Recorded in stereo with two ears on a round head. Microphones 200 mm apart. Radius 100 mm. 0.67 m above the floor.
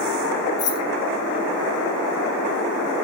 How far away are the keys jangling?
About 1.7 m.